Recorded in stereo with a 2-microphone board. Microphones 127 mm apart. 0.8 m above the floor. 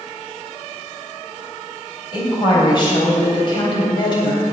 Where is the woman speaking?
35° left (ahead or behind), 3.5 m.